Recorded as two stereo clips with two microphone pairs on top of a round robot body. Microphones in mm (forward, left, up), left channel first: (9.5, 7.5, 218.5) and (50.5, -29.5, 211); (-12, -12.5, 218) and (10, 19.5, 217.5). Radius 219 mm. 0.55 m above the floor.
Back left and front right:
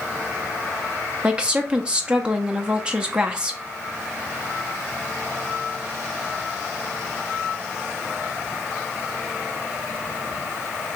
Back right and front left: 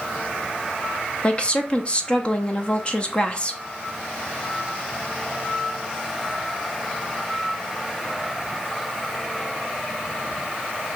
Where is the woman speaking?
90° right, 0.8 m.